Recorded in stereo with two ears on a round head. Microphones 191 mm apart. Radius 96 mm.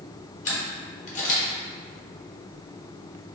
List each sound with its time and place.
0.5 s a camera shutter: 35° left (ahead or behind), 1.1 m